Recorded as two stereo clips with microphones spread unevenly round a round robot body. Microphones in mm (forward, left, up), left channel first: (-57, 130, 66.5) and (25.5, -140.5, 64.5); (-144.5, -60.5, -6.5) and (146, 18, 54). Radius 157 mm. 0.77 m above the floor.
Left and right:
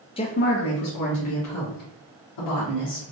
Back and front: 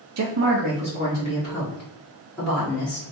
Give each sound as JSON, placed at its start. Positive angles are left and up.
{"t": 0.2, "sound": "a woman speaking", "azimuth_deg": 40, "distance_m": 0.6}